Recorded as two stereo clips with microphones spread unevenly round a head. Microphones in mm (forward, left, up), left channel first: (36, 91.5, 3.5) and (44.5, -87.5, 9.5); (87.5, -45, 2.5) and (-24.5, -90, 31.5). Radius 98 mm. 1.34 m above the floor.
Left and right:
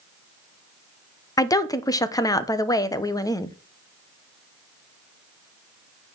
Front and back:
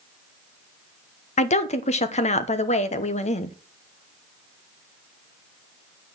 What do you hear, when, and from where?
1.4 s a woman speaking: 25° left, 1.0 m